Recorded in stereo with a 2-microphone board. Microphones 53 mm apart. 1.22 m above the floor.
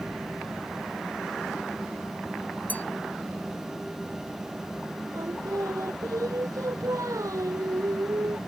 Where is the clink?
30° left (ahead or behind).